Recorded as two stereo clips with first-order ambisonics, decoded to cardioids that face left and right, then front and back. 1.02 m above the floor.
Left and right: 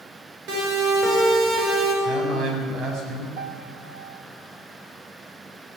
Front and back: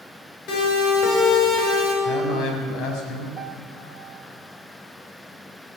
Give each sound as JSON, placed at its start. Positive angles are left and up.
{"t": 0.5, "sound": "a siren", "azimuth_deg": -65, "distance_m": 7.0}
{"t": 2.0, "sound": "a man speaking", "azimuth_deg": -50, "distance_m": 5.0}
{"t": 3.4, "sound": "a piano", "azimuth_deg": -110, "distance_m": 1.3}